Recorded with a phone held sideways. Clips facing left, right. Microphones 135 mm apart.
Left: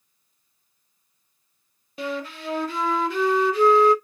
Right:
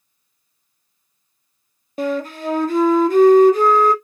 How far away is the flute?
About 0.5 m.